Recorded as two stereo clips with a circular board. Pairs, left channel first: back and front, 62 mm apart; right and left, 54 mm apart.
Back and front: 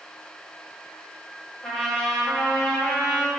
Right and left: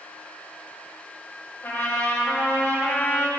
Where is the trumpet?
110° right, 1.9 m.